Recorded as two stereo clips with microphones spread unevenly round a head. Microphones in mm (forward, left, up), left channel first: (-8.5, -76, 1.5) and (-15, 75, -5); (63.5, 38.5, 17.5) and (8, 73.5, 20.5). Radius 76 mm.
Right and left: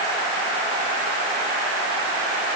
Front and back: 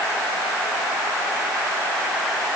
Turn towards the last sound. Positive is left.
No sound to turn to.